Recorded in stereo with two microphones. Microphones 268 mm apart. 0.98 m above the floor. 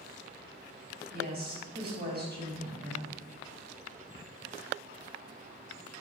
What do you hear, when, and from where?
1.1 s a woman speaking: 40° right (ahead or behind), 4.5 m